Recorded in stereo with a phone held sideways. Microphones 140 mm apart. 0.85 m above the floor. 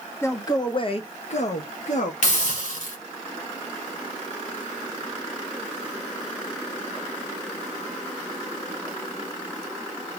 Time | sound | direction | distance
0.2 | a man speaking | 20° left (ahead or behind) | 0.7 m
2.2 | a hiss | 60° left (ahead or behind) | 1.6 m